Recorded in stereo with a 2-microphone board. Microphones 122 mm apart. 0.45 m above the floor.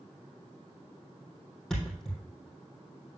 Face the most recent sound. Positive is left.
turn(degrees=5)  # may be behind; listen again after turning